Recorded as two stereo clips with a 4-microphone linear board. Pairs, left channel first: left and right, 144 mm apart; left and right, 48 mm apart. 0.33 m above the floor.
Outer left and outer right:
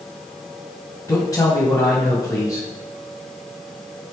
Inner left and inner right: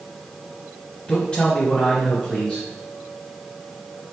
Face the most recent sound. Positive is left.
turn(degrees=20)  # may be behind; listen again after turning